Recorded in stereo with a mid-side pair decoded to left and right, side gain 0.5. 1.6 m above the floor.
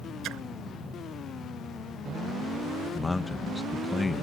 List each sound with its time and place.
0.2 s a splash: 70° right
3.0 s a man speaking: 20° left